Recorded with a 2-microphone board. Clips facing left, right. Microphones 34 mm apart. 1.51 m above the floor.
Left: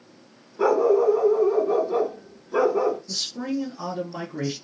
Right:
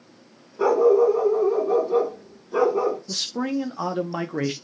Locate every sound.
0.6 s a dog barking: centre (ahead or behind), 1.6 m
3.1 s a man speaking: 70° right (ahead or behind), 0.7 m